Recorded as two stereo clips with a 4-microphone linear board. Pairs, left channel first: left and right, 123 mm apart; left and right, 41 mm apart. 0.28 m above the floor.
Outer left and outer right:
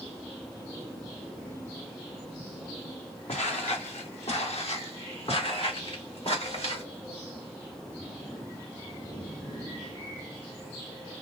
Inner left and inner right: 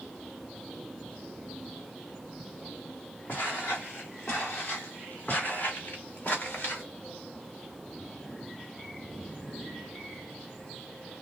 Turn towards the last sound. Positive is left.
turn(degrees=60)  # may be behind; listen again after turning